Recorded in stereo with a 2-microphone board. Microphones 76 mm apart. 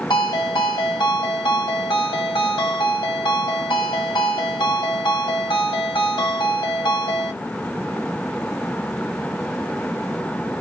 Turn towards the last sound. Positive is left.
turn(degrees=85)